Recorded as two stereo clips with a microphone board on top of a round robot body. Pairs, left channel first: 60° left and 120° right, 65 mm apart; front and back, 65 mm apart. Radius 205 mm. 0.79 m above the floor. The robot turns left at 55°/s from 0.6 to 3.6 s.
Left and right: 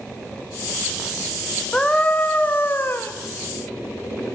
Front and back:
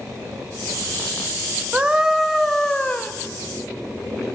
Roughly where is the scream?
Behind left.